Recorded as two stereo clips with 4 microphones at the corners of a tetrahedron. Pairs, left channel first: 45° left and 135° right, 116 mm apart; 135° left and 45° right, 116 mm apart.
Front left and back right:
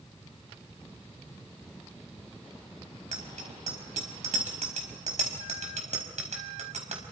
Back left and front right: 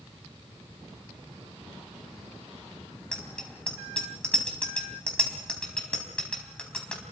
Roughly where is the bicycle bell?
Behind right.